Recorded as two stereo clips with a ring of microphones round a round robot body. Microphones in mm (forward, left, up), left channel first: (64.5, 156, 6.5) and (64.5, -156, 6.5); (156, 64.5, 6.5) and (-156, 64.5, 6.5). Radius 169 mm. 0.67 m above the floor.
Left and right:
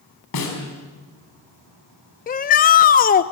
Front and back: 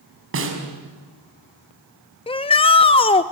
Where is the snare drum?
130° left, 4.5 m.